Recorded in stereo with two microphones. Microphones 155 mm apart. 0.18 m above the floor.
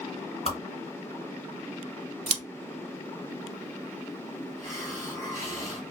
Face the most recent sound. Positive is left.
turn(degrees=25)  # may be behind; listen again after turning